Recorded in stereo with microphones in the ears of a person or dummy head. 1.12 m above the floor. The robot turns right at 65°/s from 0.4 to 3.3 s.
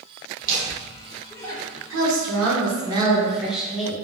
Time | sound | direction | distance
0.4 | laughter | 55° right (ahead or behind) | 0.7 m
1.9 | a woman speaking | 95° right | 0.9 m